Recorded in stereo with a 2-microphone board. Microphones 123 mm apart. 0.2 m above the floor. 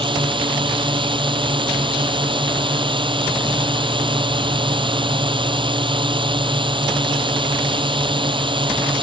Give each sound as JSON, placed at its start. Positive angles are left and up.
{"t": 0.0, "sound": "a drone", "side_deg": -40}